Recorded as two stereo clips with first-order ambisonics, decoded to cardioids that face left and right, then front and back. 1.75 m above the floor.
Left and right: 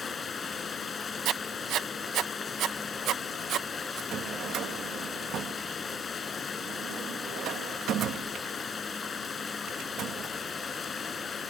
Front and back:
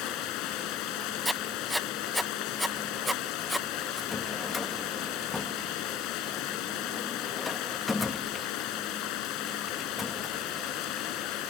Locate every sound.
0.0 s running water: 20° left
1.2 s writing: 95° right
4.1 s a drawer: 75° right